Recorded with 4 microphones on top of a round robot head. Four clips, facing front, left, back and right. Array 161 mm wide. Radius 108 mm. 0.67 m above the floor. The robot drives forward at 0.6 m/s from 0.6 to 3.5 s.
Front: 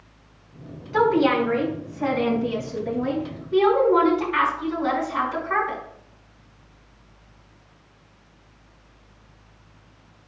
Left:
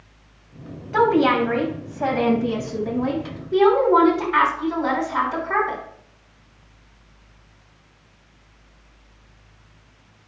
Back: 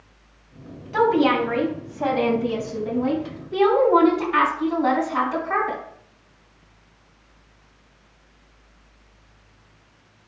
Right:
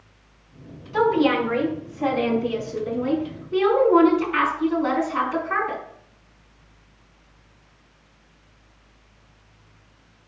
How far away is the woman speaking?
About 3.5 m.